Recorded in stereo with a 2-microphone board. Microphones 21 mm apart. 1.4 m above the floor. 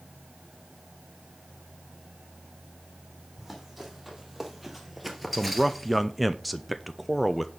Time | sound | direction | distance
3.4 | running footsteps | 5° right (ahead or behind) | 3.5 m
5.3 | a man speaking | 5° right (ahead or behind) | 0.6 m